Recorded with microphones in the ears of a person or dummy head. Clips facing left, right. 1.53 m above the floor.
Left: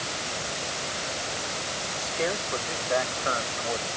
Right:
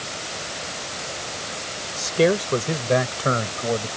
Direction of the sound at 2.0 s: 60° right (ahead or behind).